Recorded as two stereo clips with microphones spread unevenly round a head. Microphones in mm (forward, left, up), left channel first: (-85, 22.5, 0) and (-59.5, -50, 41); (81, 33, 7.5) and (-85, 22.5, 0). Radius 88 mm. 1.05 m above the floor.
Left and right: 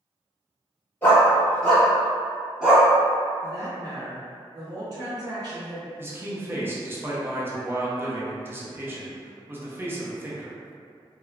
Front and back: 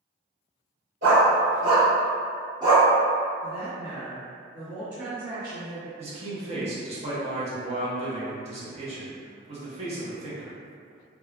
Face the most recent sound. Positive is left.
turn(degrees=-160)